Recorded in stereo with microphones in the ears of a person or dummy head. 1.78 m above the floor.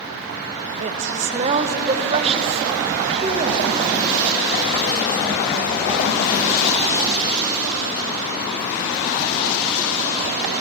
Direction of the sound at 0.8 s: 40° right (ahead or behind).